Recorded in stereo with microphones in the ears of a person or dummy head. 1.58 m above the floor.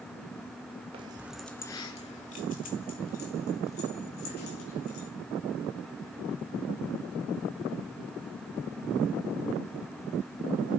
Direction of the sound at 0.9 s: 30° right (ahead or behind).